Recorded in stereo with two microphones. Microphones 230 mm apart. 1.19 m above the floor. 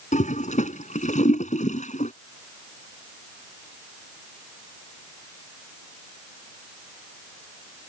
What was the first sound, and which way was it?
A toilet flushing, 30° left (ahead or behind).